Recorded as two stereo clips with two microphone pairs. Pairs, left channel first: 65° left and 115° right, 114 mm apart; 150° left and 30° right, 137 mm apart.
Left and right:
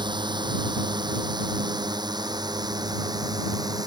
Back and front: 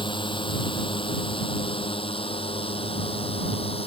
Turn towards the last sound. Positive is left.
turn(degrees=-170)